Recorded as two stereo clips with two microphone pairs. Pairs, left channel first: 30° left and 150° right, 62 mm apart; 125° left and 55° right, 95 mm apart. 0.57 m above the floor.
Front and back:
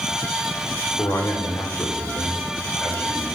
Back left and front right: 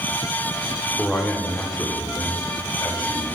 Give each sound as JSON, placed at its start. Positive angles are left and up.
{"t": 1.0, "sound": "a man speaking", "azimuth_deg": 45, "distance_m": 1.1}